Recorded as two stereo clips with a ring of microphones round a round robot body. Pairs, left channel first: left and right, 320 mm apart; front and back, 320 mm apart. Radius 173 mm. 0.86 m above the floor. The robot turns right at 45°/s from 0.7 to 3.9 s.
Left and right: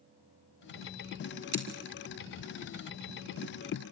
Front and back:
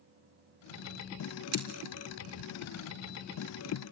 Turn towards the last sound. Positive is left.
turn(degrees=-35)